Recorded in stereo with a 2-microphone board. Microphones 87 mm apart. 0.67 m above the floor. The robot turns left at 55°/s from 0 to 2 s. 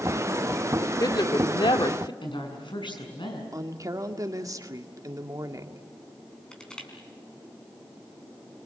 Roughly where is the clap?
No clap in this recording.